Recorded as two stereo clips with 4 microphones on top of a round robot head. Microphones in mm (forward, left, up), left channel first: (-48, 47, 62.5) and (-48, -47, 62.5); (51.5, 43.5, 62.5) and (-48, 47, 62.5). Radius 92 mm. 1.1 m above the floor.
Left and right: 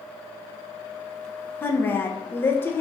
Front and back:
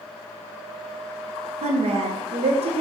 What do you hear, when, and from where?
1.6 s a woman speaking: 160° left, 0.6 m